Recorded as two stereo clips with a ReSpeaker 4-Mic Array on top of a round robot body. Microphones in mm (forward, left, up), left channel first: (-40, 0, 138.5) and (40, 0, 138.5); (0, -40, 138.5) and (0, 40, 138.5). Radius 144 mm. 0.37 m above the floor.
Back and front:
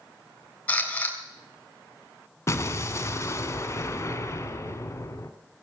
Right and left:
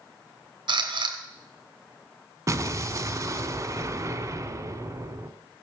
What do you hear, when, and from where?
0.7 s a camera shutter: 110° left, 3 m
2.5 s an explosion: 130° left, 1.9 m